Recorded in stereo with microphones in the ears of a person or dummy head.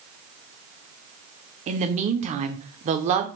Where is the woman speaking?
30° right (ahead or behind), 0.6 m.